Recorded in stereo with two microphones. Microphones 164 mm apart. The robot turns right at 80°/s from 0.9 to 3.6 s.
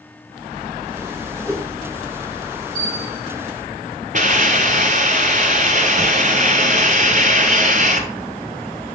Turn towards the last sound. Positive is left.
turn(degrees=-55)  # may be behind; listen again after turning